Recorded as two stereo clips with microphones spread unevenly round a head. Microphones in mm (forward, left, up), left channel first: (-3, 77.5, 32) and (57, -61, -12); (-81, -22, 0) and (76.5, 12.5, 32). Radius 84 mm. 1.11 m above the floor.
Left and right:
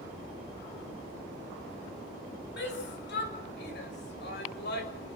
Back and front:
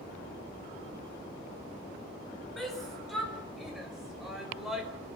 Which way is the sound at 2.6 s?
105° left.